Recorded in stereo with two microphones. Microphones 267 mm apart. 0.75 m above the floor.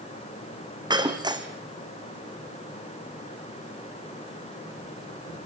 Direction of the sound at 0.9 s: 15° right (ahead or behind).